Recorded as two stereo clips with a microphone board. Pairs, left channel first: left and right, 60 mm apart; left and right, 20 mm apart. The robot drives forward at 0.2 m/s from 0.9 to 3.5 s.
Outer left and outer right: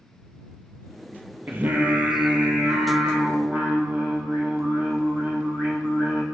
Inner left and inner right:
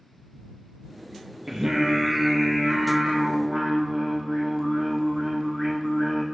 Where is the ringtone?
I don't hear a ringtone.